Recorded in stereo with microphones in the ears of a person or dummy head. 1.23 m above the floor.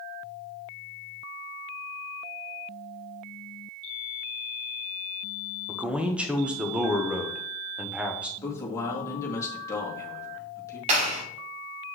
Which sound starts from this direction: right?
A clap, at 10.9 s.